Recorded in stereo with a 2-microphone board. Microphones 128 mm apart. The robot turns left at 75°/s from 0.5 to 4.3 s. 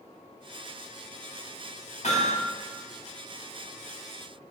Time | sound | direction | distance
2.0 | hammering | 70° left (ahead or behind) | 6 m